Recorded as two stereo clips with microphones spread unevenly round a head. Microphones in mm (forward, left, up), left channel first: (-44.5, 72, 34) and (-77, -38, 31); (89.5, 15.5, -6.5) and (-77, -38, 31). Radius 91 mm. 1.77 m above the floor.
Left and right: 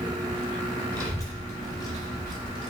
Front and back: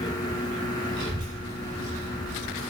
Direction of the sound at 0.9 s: 135° left.